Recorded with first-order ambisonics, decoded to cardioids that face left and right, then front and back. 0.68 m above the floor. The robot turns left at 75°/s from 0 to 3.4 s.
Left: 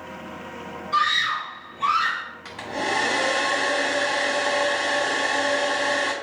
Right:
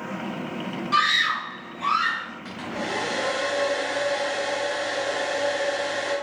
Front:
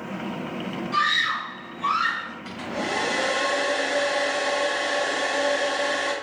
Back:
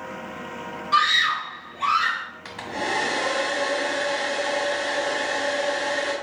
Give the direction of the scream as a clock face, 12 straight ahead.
4 o'clock.